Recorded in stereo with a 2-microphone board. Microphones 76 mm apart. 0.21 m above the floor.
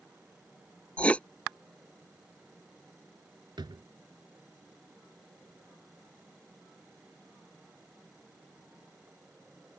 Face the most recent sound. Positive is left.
turn(degrees=-75)  # may be behind; listen again after turning